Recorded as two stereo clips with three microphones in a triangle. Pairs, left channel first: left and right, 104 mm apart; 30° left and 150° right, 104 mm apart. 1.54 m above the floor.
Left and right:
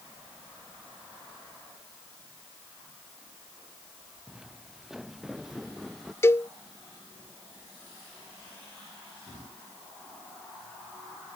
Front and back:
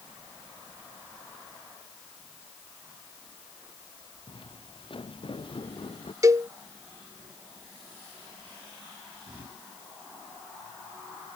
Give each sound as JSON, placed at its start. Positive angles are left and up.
{"t": 4.3, "sound": "footsteps", "azimuth_deg": -5}
{"t": 6.2, "sound": "a cowbell", "azimuth_deg": 155}